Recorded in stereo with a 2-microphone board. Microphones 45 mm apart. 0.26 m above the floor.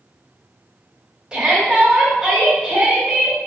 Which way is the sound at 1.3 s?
15° right (ahead or behind).